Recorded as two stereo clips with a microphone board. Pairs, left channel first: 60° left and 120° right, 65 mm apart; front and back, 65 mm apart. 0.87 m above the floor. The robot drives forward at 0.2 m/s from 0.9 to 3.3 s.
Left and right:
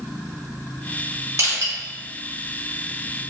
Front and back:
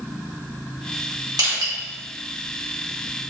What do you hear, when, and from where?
1.4 s crushing: 160° right, 1.5 m; by 1.7 s 165° right, 1.5 m